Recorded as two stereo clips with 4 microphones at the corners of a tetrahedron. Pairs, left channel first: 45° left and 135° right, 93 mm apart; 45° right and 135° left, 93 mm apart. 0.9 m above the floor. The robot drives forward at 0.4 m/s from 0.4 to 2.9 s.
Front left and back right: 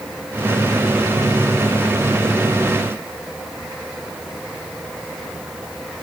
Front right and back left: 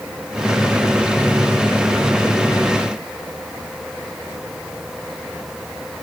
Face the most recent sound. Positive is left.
No sound to turn to.